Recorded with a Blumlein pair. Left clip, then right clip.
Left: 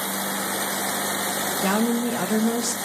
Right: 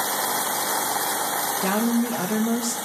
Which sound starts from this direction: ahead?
A woman speaking, at 1.6 s.